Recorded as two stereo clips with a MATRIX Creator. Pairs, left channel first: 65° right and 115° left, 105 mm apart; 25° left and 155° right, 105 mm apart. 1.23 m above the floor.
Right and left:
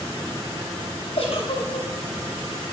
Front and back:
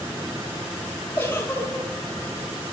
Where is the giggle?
50° right, 4 m.